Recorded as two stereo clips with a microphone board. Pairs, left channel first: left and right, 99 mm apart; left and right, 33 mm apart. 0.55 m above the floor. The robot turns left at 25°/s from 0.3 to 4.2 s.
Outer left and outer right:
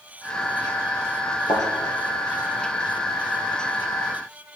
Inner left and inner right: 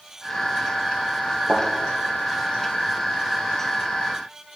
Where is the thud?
75° left (ahead or behind), 3 m; by 1.7 s 80° left, 3 m.